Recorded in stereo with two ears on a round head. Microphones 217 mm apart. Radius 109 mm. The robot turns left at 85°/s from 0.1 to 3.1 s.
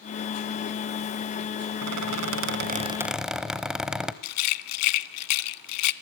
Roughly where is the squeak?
Ahead right.